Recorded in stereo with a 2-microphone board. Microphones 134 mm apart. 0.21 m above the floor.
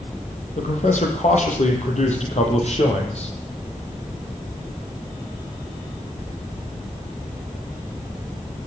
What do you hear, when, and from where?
0.6 s a man speaking: 65° left (ahead or behind), 8 m; by 3.3 s 50° left (ahead or behind), 7.5 m